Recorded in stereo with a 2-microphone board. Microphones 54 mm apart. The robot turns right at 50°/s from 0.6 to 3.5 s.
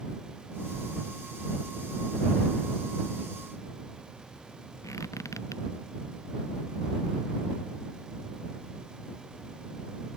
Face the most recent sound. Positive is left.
turn(degrees=75)  # may be behind; listen again after turning